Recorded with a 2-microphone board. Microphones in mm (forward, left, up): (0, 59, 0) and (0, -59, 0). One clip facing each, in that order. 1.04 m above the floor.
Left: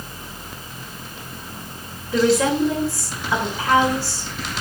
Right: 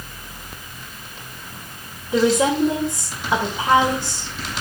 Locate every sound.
2.1 s a woman speaking: 20° right (ahead or behind), 3.5 m